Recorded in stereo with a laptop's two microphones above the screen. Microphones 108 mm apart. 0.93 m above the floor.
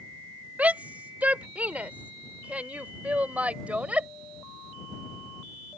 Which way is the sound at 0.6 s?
15° right (ahead or behind).